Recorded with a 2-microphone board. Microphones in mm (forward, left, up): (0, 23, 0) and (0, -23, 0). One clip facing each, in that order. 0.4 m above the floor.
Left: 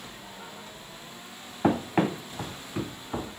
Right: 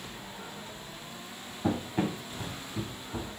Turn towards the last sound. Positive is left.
turn(degrees=65)  # may be behind; listen again after turning